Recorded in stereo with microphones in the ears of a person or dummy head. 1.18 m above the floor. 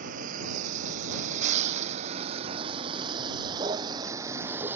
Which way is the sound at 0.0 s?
50° right (ahead or behind).